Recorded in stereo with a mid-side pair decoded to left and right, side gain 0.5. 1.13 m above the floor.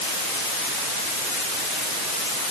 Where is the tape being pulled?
I don't hear tape being pulled.